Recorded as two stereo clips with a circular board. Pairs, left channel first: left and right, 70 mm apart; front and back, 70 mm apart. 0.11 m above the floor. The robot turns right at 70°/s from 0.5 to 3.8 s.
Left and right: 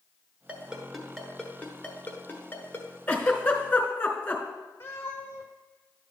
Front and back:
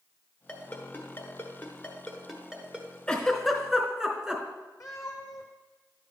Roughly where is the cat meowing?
Ahead left.